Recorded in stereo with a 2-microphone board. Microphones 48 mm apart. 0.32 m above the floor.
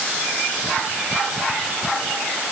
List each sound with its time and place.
Only background noise.